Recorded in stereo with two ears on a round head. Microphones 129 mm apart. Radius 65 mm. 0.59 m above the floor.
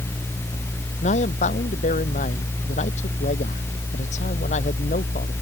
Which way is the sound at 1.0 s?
55° left (ahead or behind).